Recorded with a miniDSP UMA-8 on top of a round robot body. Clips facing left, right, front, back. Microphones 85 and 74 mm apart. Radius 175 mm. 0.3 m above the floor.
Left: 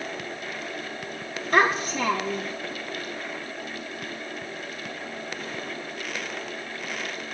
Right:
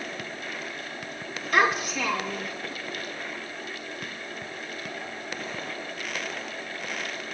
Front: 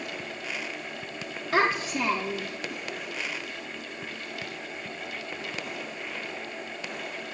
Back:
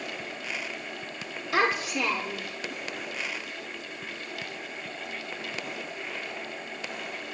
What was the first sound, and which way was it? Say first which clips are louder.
A child speaking: left 2 dB, front 1 dB; 40° left.